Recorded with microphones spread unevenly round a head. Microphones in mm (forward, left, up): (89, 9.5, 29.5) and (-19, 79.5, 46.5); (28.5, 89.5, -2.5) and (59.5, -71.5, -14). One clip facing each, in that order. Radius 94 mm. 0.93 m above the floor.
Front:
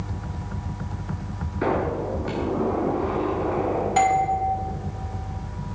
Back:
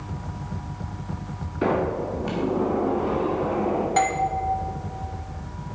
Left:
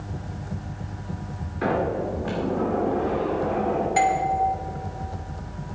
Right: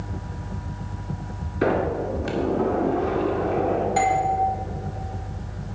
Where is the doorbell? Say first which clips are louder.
Front 5 dB, left 1 dB; 40° left, 1.5 m.